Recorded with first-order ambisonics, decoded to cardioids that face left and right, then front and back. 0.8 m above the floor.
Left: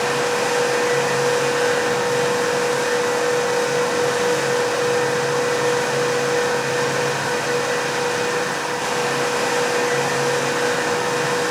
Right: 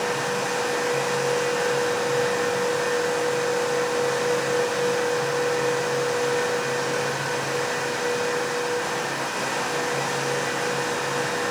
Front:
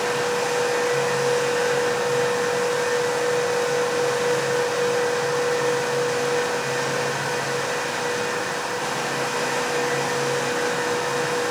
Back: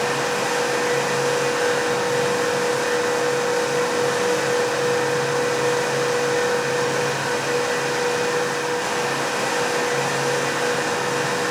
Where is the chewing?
I don't hear chewing.